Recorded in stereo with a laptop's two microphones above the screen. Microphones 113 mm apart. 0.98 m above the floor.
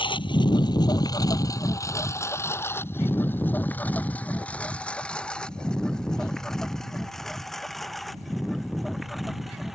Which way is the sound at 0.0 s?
45° left (ahead or behind).